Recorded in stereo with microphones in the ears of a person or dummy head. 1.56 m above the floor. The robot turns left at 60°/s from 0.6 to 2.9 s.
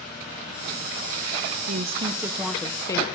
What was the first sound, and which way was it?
A woman speaking, 125° right.